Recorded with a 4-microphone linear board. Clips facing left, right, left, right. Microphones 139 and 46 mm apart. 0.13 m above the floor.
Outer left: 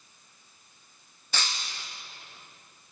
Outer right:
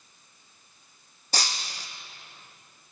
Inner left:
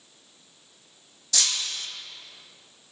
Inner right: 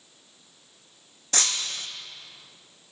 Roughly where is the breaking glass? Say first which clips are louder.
Outer right 3 dB, even; right.